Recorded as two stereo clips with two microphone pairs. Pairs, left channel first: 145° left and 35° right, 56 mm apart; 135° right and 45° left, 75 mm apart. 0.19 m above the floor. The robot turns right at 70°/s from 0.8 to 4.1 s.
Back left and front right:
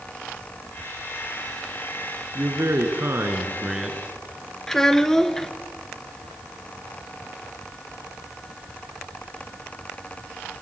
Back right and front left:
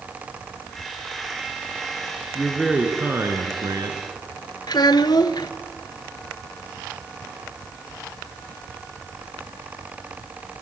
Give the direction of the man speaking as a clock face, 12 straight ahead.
2 o'clock.